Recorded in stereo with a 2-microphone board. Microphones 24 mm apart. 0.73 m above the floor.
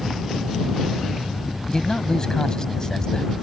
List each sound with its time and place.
1.7 s a man speaking: 25° left (ahead or behind)